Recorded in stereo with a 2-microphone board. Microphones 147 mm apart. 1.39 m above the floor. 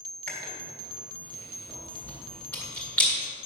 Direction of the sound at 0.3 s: 10° left (ahead or behind).